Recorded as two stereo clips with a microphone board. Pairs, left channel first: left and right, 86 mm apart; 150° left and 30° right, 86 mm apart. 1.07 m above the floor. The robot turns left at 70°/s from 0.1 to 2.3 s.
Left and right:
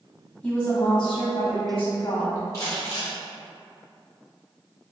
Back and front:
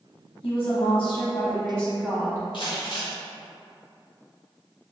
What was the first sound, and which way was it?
A woman speaking, 170° left.